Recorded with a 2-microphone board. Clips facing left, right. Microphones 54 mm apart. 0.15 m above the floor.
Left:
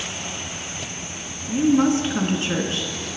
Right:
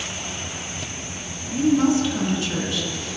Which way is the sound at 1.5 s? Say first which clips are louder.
Left 1 dB; 40° left (ahead or behind).